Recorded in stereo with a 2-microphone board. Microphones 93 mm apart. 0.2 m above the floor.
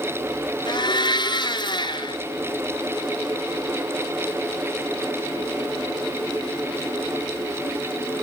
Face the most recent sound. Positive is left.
turn(degrees=55)  # may be behind; listen again after turning